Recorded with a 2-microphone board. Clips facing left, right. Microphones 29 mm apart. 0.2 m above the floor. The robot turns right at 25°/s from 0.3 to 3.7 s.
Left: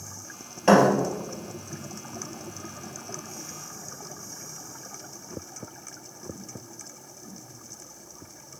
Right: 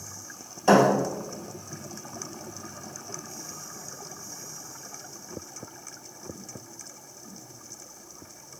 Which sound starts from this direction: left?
A thud, at 0.7 s.